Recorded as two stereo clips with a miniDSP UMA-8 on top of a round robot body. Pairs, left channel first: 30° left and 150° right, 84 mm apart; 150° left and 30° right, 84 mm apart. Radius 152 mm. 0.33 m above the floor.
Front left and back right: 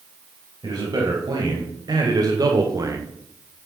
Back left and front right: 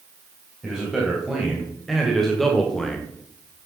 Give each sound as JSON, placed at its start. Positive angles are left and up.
{"t": 0.6, "sound": "a man speaking", "azimuth_deg": -120, "distance_m": 3.5}